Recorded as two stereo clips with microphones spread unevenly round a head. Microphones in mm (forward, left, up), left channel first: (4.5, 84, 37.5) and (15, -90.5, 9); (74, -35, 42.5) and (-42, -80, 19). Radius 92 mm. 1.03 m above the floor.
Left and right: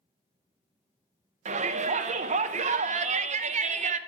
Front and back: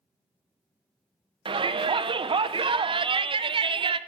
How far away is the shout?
About 0.6 m.